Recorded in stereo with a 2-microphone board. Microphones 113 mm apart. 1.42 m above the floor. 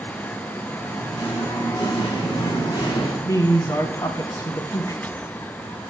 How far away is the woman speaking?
About 1.1 m.